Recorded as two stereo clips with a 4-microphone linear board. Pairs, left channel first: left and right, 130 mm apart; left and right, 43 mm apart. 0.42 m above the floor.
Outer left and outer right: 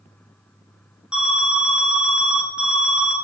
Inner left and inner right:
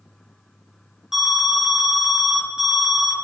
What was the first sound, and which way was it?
An alarm, 5° right (ahead or behind).